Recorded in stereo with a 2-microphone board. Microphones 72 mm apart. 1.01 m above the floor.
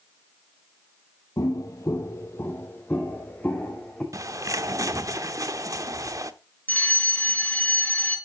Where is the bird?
50° right (ahead or behind), 0.8 m.